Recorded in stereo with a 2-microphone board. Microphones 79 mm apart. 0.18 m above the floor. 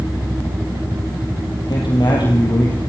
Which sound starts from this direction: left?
A man speaking, at 1.7 s.